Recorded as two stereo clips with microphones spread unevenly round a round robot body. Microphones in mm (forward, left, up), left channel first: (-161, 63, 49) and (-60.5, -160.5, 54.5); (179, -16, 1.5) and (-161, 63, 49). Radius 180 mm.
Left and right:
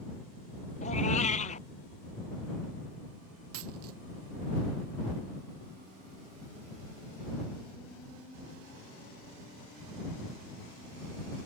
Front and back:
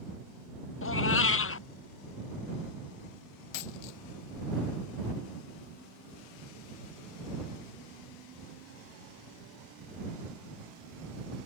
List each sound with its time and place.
0.8 s a cat meowing: 45° left
3.5 s a dropped coin: 15° right